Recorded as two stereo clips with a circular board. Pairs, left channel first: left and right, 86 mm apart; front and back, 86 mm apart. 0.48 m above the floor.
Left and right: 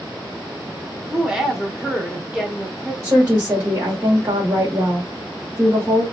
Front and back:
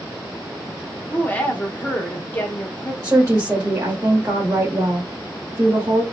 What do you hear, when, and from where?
1.1 s a woman speaking: 15° right, 1.1 m
3.0 s a woman speaking: 135° right, 1.2 m